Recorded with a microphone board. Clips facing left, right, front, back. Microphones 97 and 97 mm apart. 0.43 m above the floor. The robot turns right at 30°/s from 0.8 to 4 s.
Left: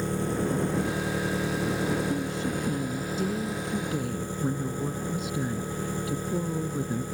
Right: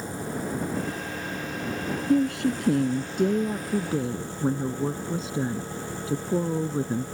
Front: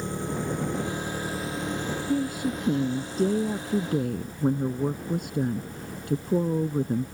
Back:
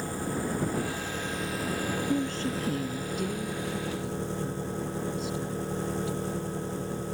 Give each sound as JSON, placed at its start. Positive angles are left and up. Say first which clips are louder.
{"t": 0.0, "sound": "an engine running", "louder": "left 4 dB, front 1 dB", "azimuth_deg": 70}
{"t": 2.1, "sound": "a woman speaking", "louder": "right 7 dB, front 5 dB", "azimuth_deg": -90}